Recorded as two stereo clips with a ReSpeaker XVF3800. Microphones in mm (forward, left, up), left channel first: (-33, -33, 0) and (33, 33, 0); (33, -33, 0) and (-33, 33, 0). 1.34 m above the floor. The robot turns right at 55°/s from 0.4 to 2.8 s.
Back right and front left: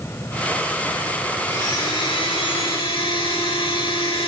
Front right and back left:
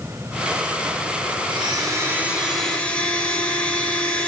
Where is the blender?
170° left, 3.5 m; by 4.3 s 120° right, 3.5 m.